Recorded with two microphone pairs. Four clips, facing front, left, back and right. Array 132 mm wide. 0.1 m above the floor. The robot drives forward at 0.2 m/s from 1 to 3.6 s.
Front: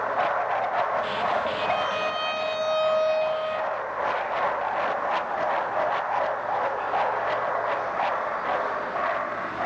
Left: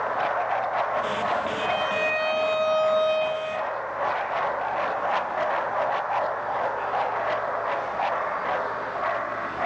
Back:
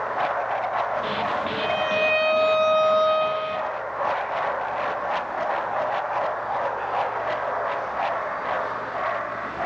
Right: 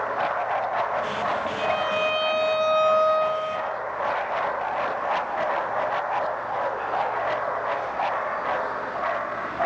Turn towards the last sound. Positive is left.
turn(degrees=180)